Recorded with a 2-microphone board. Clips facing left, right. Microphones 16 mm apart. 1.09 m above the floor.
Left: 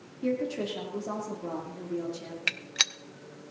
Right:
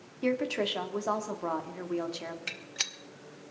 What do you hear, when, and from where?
0.2 s a woman speaking: 70° right (ahead or behind), 2.5 m
2.5 s a gunshot: 35° left (ahead or behind), 0.6 m